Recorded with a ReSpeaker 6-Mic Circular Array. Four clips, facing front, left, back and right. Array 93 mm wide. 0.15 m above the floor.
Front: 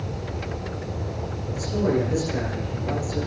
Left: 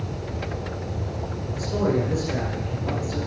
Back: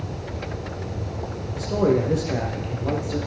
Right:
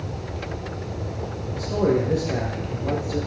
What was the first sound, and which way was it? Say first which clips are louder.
A man speaking: right 2 dB, back 3 dB; 145° right.